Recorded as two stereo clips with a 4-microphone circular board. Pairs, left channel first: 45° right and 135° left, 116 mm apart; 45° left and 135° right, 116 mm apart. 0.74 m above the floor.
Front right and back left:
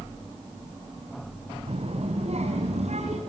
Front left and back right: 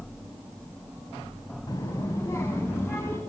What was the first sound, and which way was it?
A child speaking, 100° left.